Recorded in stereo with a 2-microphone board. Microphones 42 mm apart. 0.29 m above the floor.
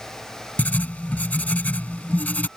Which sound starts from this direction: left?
Writing, at 0.6 s.